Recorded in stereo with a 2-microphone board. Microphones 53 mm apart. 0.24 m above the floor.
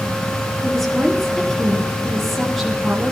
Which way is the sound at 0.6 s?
5° left (ahead or behind).